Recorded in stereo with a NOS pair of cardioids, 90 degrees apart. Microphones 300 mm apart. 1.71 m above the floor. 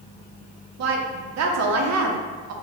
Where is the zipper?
No zipper in this recording.